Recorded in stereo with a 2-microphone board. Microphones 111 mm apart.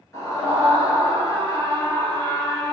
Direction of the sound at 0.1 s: 25° left (ahead or behind).